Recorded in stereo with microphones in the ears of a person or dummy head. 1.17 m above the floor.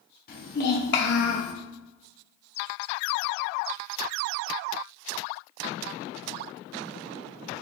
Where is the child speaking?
55° left (ahead or behind), 1.0 m; by 1.5 s 75° left (ahead or behind), 0.7 m.